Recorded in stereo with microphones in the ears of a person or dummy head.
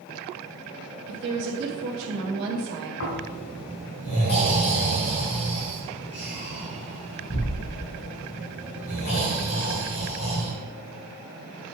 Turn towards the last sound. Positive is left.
turn(degrees=55)  # may be behind; listen again after turning